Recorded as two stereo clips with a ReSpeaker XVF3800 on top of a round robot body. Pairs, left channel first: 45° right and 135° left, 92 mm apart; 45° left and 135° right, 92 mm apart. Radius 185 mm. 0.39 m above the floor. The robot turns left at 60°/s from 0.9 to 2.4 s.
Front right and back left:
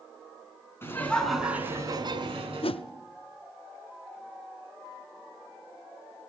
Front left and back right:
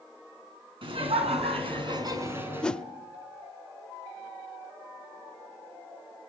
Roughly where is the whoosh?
Ahead right.